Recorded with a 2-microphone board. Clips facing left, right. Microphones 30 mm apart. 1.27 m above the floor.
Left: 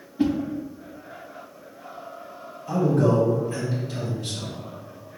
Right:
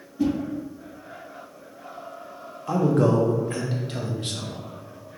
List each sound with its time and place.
0.2 s a whoosh: 40° left (ahead or behind), 0.6 m
2.7 s a man speaking: 55° right (ahead or behind), 0.9 m